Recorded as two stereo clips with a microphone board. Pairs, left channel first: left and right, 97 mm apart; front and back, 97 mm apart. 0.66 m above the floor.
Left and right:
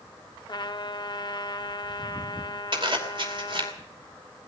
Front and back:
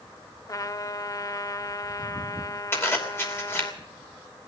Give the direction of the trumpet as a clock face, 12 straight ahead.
10 o'clock.